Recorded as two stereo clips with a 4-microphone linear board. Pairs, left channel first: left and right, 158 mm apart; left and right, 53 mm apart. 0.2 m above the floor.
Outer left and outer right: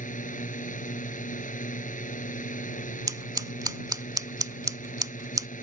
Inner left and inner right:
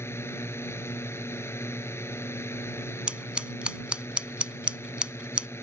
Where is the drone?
55° left (ahead or behind).